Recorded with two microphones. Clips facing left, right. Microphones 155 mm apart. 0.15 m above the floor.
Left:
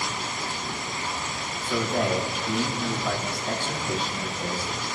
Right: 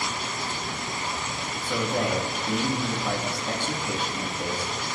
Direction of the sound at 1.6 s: 20° right (ahead or behind).